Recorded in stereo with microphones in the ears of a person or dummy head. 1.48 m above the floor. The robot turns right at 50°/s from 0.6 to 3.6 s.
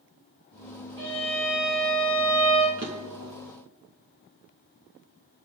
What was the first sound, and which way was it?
A violin, 155° left.